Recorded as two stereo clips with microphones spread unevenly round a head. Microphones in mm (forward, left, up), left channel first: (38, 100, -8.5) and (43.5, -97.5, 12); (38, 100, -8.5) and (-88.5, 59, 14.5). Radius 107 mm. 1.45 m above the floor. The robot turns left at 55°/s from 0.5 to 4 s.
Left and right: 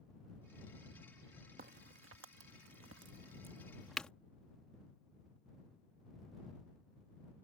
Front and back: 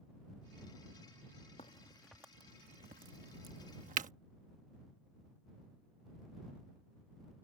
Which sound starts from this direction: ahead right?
A crack, at 1.6 s.